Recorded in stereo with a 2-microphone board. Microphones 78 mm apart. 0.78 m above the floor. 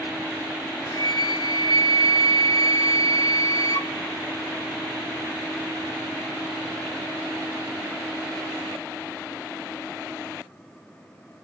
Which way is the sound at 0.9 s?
55° left (ahead or behind).